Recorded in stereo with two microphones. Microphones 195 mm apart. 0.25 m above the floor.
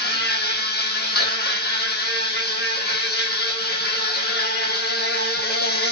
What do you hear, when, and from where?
0.0 s an insect: 55° left (ahead or behind), 0.8 m